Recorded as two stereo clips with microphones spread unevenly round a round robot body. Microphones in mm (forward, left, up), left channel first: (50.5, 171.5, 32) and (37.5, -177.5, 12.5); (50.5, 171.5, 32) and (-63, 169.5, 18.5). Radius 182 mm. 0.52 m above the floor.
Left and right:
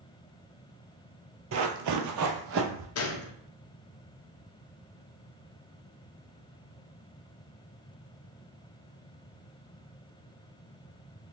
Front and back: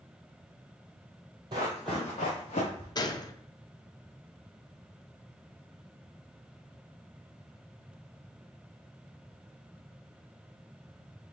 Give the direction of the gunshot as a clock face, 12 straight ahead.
10 o'clock.